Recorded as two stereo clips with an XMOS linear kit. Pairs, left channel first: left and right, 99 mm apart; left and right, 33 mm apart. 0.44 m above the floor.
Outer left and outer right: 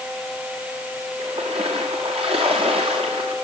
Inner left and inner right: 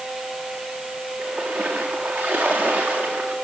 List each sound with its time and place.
1.2 s a splash: 75° right (ahead or behind), 8.5 m